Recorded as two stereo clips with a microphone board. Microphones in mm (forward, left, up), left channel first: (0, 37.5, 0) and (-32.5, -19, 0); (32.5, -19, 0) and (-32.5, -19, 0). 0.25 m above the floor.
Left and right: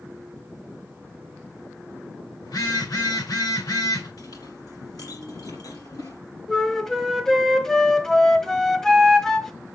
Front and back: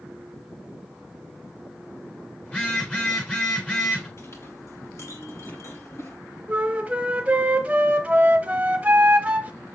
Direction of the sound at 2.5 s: 70° left.